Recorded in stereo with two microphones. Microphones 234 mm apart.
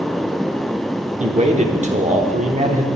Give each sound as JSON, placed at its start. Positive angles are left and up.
{"t": 1.2, "sound": "a man speaking", "side_deg": -30, "distance_m": 1.1}